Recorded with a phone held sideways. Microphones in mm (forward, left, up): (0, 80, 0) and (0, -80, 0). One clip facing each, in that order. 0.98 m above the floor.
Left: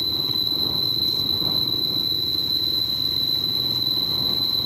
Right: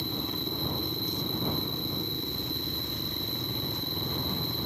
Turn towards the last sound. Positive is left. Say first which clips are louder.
# even
turn(degrees=80)